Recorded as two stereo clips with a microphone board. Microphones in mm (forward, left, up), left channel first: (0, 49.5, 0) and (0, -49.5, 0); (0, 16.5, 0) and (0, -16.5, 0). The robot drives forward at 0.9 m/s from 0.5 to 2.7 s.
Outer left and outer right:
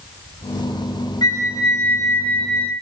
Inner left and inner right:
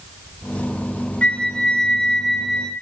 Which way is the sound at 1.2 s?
40° left (ahead or behind).